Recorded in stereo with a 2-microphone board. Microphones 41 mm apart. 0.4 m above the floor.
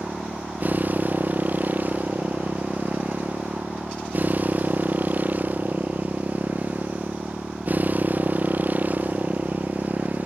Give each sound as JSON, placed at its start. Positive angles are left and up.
{"t": 0.0, "sound": "a motorcycle", "side_deg": -40}